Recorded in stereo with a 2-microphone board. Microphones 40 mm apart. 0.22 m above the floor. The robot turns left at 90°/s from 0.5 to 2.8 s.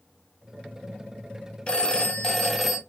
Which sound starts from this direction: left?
A phone ringing, at 1.7 s.